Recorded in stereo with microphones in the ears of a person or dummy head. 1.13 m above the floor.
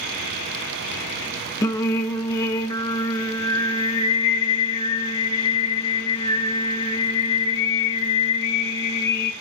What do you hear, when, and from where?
1.6 s singing: 25° left (ahead or behind), 0.6 m